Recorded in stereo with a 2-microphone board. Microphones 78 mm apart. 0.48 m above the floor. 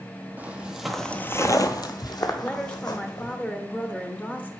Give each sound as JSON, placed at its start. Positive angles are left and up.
{"t": 0.4, "sound": "footsteps", "side_deg": -20, "distance_m": 1.0}
{"t": 2.4, "sound": "a woman speaking", "side_deg": 20, "distance_m": 0.8}